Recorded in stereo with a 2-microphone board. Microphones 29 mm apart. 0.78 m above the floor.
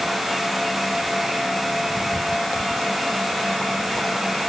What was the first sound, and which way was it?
Only background noise.